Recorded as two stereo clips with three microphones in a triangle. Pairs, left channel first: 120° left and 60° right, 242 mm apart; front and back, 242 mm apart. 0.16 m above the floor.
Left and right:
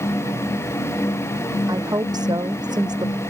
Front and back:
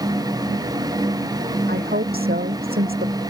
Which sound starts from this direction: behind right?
A woman speaking, at 1.7 s.